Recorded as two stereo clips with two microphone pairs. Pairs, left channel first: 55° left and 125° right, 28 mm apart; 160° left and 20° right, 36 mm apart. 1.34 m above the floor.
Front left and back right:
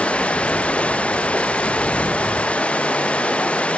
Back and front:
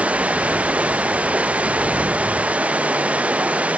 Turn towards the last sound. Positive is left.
turn(degrees=25)